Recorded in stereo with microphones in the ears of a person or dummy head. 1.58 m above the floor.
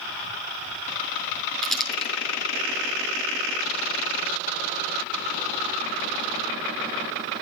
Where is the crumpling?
10° left (ahead or behind), 7 m.